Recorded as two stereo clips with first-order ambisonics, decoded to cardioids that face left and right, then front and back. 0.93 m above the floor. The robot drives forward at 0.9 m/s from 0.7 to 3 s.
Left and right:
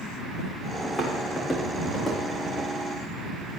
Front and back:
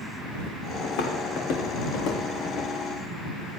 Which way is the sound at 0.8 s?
10° left.